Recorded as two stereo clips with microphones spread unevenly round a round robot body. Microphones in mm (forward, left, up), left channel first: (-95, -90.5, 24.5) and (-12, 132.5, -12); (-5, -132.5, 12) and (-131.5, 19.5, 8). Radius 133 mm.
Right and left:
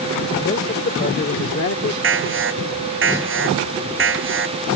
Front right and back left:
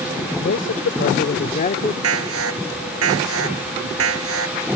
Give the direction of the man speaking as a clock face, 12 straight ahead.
2 o'clock.